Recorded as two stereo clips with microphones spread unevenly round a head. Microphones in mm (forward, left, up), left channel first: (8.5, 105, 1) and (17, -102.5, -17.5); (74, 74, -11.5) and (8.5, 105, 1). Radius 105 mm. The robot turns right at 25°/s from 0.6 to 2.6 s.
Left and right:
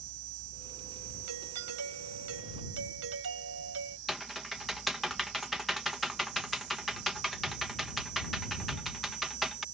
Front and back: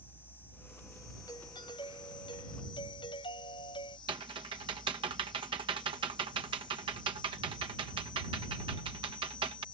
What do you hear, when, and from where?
0.0 s an insect: 105° right; by 9.7 s 55° right
1.3 s a doorbell: 95° right; by 4.0 s 60° right
4.1 s typing on a keyboard: 175° right